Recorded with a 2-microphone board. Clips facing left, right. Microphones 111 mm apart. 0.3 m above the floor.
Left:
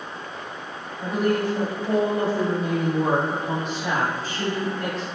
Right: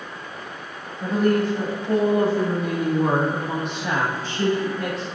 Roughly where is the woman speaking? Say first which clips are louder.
Right 3 dB; centre.